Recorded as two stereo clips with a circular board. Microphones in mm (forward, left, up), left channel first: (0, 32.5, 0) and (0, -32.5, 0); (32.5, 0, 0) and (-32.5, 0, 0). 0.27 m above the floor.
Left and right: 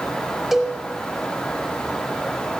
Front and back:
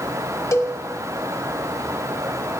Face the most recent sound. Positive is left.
turn(degrees=-5)